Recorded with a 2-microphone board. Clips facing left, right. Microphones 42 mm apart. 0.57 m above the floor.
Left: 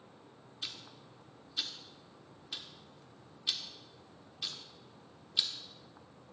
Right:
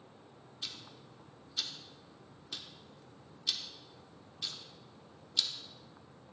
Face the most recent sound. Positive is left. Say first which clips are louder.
# left 1 dB
turn(degrees=20)  # may be behind; listen again after turning